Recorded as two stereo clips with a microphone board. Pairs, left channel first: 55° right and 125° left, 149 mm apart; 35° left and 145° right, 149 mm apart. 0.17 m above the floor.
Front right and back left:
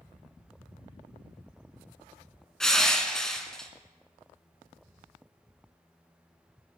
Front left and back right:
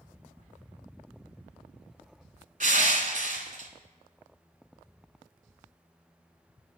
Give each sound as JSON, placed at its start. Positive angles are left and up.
{"t": 2.6, "sound": "crushing", "azimuth_deg": -140, "distance_m": 0.9}